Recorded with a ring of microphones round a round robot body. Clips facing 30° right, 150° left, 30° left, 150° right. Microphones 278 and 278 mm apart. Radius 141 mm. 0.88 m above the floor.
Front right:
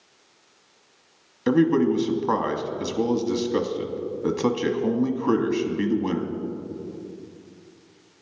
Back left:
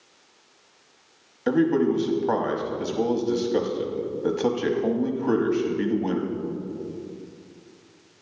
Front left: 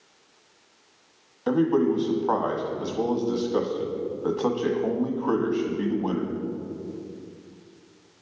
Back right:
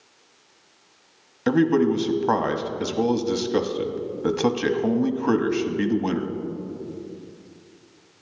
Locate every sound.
1.5 s a man speaking: 100° right, 1.1 m